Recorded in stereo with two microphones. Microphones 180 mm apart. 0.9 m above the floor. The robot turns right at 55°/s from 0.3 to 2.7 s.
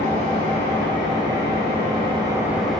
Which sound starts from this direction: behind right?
An engine running, at 0.0 s.